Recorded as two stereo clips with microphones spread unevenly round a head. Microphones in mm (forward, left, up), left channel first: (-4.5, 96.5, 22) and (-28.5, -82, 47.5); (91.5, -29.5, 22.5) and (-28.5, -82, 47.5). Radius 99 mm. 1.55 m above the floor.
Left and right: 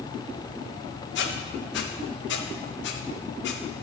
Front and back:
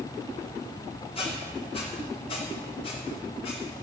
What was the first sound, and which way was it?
A squeak, 90° left.